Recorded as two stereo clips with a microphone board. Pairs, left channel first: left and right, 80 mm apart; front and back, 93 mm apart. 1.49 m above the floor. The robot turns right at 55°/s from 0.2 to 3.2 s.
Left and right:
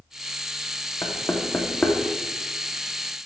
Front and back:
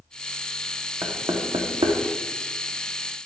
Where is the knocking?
125° left, 0.9 m; by 2.0 s 175° left, 0.9 m.